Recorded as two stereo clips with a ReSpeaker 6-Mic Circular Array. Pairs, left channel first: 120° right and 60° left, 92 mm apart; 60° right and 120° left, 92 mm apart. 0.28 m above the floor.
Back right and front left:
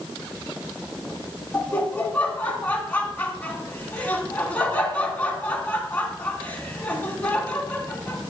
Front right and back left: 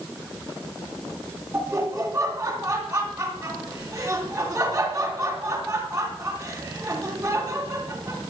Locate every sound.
1.5 s laughter: 175° right, 2 m